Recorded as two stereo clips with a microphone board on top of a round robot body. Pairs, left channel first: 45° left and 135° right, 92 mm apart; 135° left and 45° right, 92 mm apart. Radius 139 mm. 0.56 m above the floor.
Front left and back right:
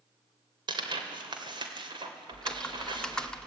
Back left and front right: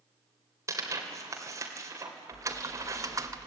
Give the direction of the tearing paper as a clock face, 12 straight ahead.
3 o'clock.